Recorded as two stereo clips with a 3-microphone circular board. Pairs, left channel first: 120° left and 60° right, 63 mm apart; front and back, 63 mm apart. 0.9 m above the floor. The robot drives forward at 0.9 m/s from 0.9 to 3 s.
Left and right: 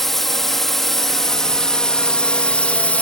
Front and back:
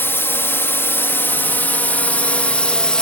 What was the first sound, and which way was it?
A drone, 35° left.